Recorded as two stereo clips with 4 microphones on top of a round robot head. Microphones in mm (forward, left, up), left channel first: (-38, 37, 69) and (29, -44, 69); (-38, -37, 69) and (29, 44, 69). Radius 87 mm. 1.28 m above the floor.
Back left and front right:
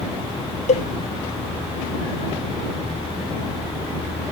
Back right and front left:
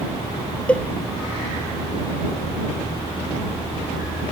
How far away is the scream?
No scream in this recording.